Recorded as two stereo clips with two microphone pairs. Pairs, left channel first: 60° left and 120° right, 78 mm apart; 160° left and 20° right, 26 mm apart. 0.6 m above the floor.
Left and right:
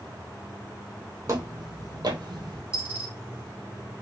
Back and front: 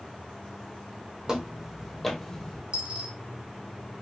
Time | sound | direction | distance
1.3 | footsteps | 75° right | 1.2 m
2.7 | a dropped coin | 50° right | 1.6 m